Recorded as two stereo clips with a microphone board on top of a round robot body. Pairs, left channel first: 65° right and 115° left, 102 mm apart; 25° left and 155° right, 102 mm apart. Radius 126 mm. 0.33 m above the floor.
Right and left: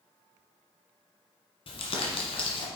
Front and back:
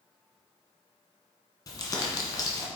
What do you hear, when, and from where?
1.7 s crumpling: 35° right, 1.5 m